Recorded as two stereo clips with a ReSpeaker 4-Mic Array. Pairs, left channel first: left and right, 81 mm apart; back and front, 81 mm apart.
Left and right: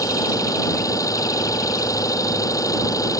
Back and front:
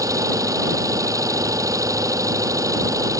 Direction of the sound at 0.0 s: 45° left.